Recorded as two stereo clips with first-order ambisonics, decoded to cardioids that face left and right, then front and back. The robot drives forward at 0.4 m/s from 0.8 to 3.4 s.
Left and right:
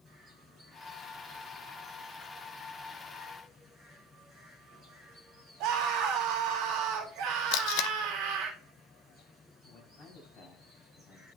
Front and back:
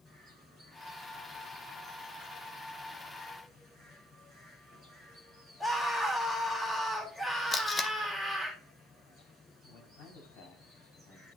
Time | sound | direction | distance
5.6 | a scream | 90° right | 1.7 m
7.5 | tape being pulled | 75° left | 0.6 m
9.6 | a man speaking | 25° left | 5.5 m